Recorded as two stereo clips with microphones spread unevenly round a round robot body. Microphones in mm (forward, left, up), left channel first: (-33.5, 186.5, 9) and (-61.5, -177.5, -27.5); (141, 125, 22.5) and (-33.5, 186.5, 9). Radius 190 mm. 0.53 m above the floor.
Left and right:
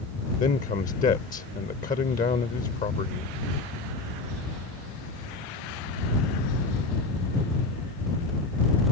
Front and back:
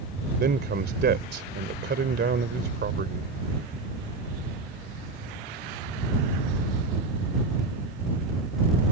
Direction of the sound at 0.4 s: 155° left.